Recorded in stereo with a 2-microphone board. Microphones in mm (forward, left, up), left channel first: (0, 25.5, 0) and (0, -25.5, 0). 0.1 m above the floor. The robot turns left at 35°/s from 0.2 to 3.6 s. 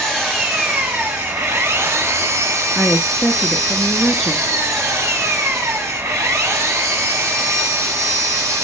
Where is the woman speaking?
10° left (ahead or behind), 1.1 m; by 4.5 s centre (ahead or behind), 1.1 m.